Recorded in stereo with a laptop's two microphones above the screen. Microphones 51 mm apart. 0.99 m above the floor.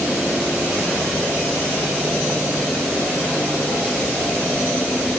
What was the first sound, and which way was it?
Only background noise.